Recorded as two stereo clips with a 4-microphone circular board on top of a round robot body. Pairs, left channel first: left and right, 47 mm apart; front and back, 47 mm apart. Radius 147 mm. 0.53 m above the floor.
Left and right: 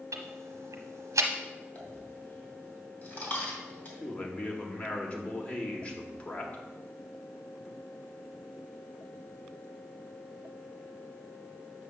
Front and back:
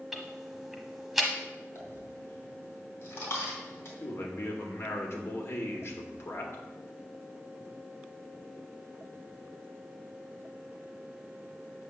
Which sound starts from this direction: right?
Ticking, at 0.1 s.